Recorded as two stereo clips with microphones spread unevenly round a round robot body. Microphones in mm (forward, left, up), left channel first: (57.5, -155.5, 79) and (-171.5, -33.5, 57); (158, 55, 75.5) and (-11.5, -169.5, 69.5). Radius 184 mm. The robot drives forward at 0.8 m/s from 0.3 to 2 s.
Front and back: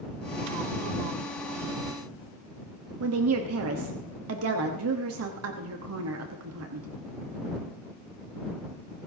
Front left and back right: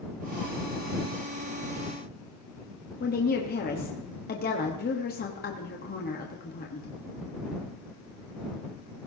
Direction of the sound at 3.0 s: 115° left.